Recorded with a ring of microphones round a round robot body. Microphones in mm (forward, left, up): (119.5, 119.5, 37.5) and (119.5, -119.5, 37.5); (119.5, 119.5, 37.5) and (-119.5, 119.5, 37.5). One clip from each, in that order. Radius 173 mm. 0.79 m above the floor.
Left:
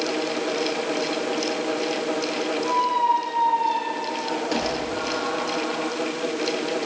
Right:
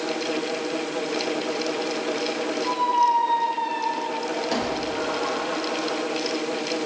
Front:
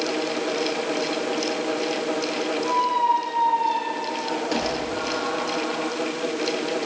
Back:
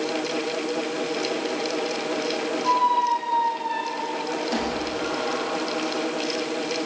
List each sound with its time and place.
2.6 s a squeak: 20° right, 7.5 m